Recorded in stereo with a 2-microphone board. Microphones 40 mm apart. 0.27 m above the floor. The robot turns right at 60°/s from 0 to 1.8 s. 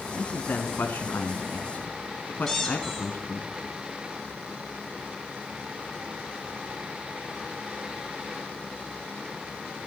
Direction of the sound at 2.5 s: 10° left (ahead or behind).